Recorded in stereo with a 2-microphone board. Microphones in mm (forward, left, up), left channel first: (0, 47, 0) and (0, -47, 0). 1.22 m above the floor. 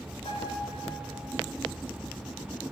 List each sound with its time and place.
0.2 s a piano: 85° left, 6 m